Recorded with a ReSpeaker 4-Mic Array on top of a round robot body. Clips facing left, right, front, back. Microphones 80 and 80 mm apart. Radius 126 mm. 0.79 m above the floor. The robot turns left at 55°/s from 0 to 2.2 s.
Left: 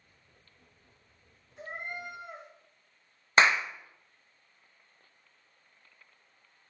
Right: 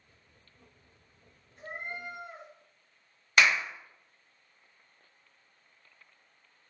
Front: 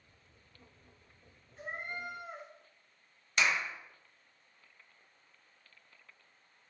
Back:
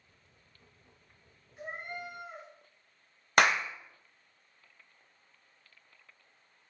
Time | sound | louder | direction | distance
1.6 | a cat meowing | left 1 dB, even | 105° left | 3 m
3.4 | a clap | left 2 dB, back 6 dB | 150° left | 0.6 m